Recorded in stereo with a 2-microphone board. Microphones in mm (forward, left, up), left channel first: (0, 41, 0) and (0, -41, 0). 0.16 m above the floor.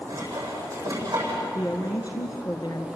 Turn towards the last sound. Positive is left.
turn(degrees=50)  # may be behind; listen again after turning